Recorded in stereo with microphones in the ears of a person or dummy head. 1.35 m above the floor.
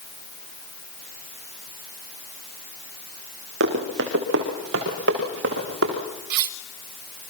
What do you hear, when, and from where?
3.6 s running footsteps: 65° right (ahead or behind), 6 m; by 6.0 s 70° right (ahead or behind), 7.5 m
6.3 s cutlery clinking: 55° right (ahead or behind), 0.8 m